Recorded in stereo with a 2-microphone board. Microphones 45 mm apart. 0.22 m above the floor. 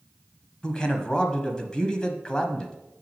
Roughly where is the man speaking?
Centre.